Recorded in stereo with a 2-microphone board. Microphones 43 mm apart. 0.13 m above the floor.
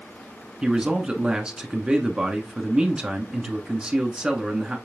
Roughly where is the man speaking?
Right.